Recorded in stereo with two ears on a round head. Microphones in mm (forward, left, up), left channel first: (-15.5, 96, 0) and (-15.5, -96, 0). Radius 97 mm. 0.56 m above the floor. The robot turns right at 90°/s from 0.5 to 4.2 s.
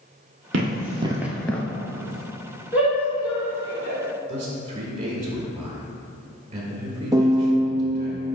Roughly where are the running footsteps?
Right.